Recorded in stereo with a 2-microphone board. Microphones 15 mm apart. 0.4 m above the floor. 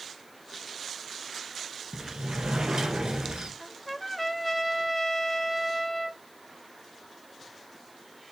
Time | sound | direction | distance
1.9 | a sliding door | 85° right | 1.8 m
3.6 | a trumpet | 5° left (ahead or behind) | 0.9 m